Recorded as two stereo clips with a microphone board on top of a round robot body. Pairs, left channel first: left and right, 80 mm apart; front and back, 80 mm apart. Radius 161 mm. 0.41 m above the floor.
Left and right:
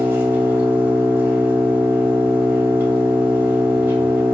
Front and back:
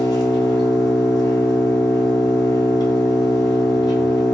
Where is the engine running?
30° right, 2 m.